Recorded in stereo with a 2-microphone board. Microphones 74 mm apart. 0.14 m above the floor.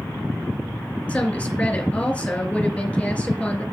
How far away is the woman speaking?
About 2.5 m.